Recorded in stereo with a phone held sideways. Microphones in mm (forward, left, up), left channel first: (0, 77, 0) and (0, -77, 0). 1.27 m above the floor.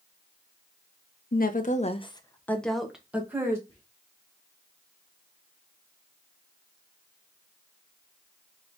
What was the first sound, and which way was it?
A woman speaking, 70° left (ahead or behind).